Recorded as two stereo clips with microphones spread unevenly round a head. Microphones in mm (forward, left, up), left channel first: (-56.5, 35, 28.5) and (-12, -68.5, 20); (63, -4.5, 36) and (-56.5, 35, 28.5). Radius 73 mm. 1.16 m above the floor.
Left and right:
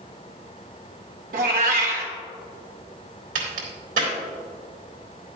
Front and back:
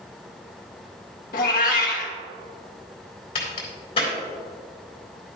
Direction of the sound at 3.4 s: 70° right.